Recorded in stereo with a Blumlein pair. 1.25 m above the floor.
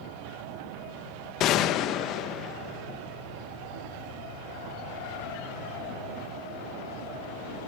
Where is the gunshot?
35° left, 1.2 m.